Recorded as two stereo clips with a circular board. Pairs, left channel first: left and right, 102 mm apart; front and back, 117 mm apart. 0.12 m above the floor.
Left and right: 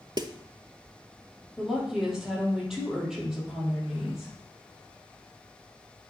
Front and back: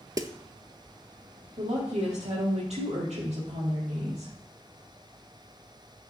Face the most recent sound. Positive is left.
turn(degrees=-175)